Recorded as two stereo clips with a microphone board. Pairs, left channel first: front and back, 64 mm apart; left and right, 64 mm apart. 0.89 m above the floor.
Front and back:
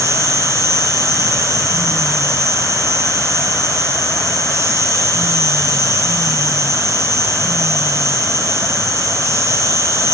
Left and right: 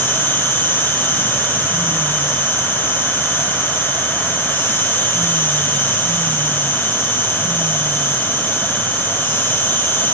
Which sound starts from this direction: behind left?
An insect, at 0.0 s.